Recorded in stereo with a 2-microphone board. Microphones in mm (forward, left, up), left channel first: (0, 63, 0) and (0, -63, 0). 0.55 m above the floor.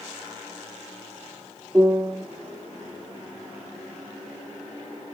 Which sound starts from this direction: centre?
A piano, at 1.7 s.